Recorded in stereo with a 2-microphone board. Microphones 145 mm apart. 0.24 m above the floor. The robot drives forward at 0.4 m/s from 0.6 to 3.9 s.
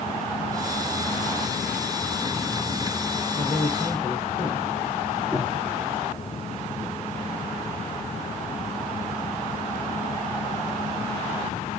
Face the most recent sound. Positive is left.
turn(degrees=-5)  # may be behind; listen again after turning